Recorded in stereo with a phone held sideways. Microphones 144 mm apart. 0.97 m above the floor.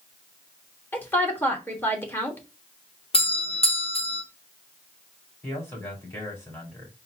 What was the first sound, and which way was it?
A woman speaking, 15° left (ahead or behind).